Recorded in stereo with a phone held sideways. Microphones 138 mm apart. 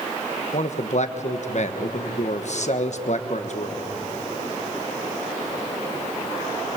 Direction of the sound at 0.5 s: 55° left (ahead or behind).